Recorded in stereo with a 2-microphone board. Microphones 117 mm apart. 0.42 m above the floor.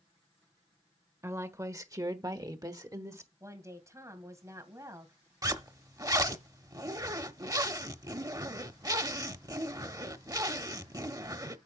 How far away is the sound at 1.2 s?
About 1.4 m.